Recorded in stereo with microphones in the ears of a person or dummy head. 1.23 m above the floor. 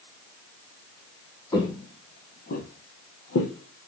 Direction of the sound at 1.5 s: 25° left (ahead or behind).